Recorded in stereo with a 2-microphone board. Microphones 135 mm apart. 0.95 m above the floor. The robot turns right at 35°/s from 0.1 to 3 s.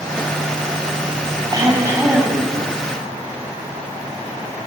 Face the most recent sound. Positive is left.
turn(degrees=20)